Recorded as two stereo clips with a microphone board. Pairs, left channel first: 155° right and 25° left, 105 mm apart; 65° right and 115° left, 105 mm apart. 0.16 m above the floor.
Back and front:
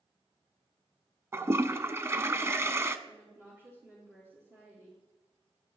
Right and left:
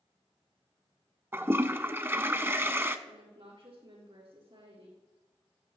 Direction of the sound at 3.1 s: 85° left.